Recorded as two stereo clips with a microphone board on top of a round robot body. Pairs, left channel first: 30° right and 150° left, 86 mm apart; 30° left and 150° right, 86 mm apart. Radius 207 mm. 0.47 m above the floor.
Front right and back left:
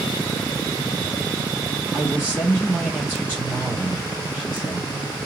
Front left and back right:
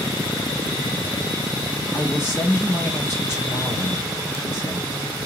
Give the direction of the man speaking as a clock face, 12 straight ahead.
9 o'clock.